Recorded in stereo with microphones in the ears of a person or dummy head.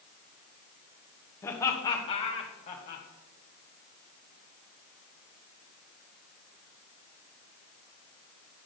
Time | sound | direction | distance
1.4 | laughter | 15° left (ahead or behind) | 1.5 m